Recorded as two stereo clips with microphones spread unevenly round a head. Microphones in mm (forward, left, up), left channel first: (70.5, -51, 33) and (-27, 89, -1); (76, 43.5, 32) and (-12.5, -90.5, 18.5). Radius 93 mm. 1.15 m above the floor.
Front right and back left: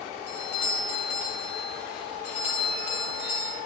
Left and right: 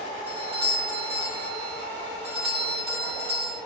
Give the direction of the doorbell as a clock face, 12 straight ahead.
2 o'clock.